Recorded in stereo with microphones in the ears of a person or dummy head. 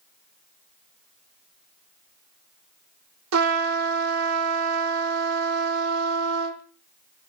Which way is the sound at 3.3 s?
70° right (ahead or behind).